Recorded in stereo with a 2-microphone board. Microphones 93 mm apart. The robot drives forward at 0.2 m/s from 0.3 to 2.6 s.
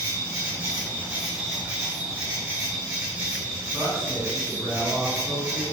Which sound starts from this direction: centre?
A man speaking, at 3.7 s.